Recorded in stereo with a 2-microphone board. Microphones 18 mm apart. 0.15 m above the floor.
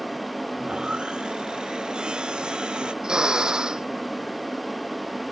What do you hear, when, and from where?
0.6 s sawing: 65° right (ahead or behind)
3.0 s a drill: 60° right (ahead or behind)